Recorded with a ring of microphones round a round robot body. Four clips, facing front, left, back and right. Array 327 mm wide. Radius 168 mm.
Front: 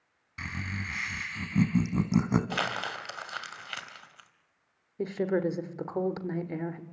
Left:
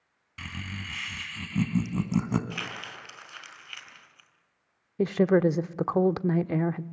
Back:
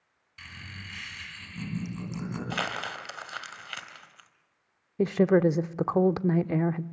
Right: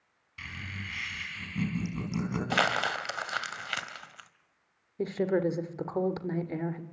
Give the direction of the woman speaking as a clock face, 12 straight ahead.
7 o'clock.